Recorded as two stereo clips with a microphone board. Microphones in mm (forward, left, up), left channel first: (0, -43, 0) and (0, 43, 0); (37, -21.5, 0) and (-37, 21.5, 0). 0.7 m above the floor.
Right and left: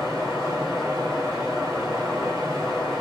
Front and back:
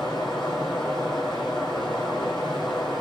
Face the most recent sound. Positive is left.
turn(degrees=0)